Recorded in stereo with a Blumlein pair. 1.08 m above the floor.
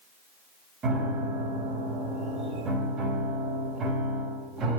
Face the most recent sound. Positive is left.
turn(degrees=-25)